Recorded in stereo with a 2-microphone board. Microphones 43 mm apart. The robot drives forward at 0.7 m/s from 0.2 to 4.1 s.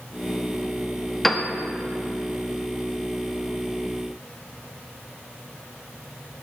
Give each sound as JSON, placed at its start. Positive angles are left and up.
{"t": 1.2, "sound": "a piano", "side_deg": 5, "distance_m": 0.9}